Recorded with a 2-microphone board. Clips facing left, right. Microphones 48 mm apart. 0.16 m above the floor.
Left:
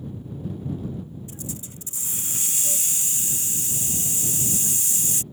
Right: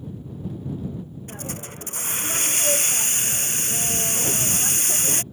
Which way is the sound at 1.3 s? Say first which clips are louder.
Right 3 dB; 60° right (ahead or behind).